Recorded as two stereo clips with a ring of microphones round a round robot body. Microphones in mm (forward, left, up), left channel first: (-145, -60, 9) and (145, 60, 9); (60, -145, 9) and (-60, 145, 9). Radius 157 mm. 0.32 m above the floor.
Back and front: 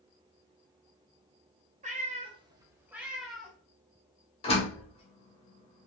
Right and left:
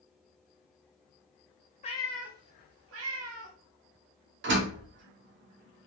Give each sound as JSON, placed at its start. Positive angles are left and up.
{"t": 1.8, "sound": "a cat meowing", "azimuth_deg": -20, "distance_m": 0.7}
{"t": 4.4, "sound": "a door slam", "azimuth_deg": 140, "distance_m": 1.1}